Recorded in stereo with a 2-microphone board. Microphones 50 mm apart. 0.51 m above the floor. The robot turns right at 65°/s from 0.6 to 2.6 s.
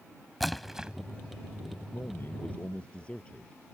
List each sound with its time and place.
0.4 s a splash: centre (ahead or behind); by 0.9 s 20° right (ahead or behind)
1.9 s a man speaking: 115° left; by 3.6 s 155° left